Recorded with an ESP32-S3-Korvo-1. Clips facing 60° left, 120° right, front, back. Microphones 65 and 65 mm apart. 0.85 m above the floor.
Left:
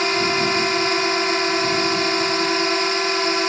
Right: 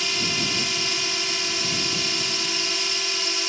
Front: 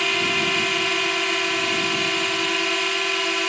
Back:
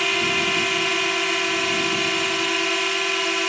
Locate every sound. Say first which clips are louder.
0.0 s a drone: left 9 dB, even; 90° left